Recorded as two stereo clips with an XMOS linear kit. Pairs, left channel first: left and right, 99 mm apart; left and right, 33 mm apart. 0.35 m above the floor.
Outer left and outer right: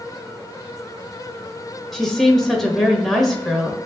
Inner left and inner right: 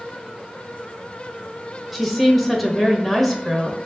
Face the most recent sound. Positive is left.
turn(degrees=0)  # may be behind; listen again after turning